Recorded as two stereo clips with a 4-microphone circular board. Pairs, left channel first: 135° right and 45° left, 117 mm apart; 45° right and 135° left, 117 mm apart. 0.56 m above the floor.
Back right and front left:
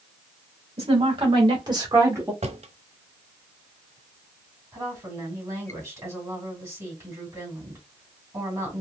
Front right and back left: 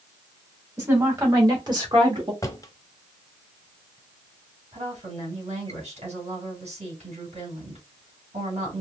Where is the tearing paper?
No tearing paper in this recording.